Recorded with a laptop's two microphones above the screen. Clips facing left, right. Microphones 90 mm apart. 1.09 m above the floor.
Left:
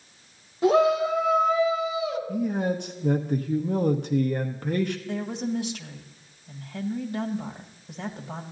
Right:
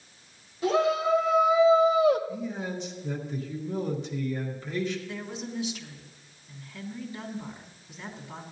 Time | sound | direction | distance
0.6 | a shout | 30° left (ahead or behind) | 1.1 m
2.3 | a man speaking | 55° left (ahead or behind) | 0.8 m
5.1 | a woman speaking | 65° left (ahead or behind) | 1.5 m